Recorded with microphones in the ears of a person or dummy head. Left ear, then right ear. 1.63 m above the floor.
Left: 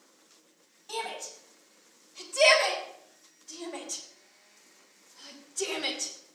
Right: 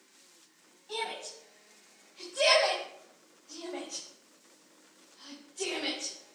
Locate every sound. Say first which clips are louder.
0.9 s a shout: left 1 dB; 50° left (ahead or behind), 5 m; by 6.1 s 30° left (ahead or behind), 2.5 m